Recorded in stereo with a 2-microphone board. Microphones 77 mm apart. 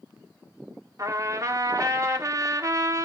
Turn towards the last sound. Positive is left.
turn(degrees=-40)  # may be behind; listen again after turning